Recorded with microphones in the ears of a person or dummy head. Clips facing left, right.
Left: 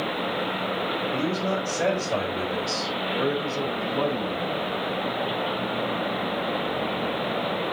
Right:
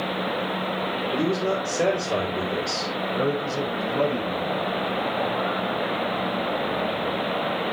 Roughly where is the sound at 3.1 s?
Right.